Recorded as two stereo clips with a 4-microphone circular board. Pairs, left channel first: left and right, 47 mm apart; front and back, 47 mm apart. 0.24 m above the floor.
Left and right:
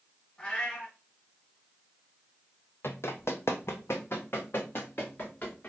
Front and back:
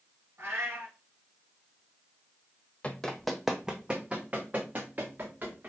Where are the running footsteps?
65° left, 0.6 m; by 5.7 s 130° left, 1.7 m.